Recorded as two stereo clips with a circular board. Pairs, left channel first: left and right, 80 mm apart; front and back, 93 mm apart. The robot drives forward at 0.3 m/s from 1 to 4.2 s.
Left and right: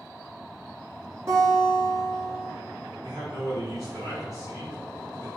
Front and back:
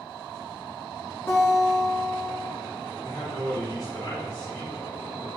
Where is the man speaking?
45° right, 1.9 m; by 5.3 s 50° right, 1.7 m.